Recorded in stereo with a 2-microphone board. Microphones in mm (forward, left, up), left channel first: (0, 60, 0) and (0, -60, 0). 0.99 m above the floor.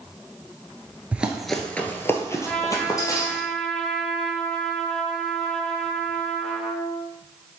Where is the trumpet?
5° left (ahead or behind), 1.4 m.